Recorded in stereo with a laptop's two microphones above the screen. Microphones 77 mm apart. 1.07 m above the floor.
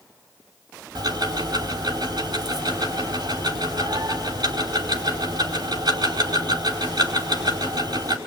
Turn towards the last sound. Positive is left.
turn(degrees=-70)  # may be behind; listen again after turning